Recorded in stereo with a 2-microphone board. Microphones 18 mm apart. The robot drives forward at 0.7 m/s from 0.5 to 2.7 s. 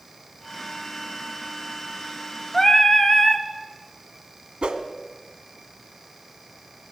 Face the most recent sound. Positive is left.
turn(degrees=-70)  # may be behind; listen again after turning